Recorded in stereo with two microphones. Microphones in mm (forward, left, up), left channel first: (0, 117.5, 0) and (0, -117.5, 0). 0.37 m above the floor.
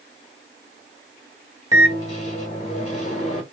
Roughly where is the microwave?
Left.